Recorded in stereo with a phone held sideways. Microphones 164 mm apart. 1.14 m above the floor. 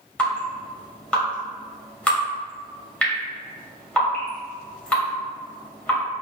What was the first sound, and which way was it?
Dripping, 10° left (ahead or behind).